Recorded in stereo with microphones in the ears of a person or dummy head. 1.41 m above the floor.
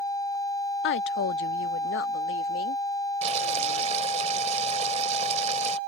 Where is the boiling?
35° right (ahead or behind).